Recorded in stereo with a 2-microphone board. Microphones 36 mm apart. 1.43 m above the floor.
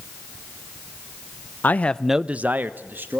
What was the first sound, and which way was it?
A man speaking, 55° left (ahead or behind).